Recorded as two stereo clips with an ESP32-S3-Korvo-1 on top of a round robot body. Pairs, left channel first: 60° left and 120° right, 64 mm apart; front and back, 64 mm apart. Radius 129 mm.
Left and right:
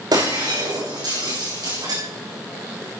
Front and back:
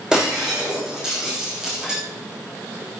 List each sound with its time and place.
0.1 s breaking glass: 100° right, 6 m